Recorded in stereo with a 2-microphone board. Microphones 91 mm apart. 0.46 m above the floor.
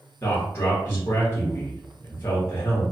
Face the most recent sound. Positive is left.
turn(degrees=30)  # may be behind; listen again after turning